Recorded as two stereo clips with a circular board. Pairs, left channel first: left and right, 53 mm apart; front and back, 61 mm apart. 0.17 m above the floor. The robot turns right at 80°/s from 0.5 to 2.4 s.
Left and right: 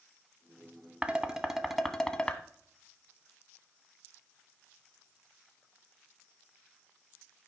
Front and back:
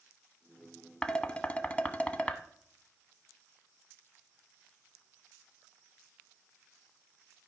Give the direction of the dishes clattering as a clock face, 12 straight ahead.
2 o'clock.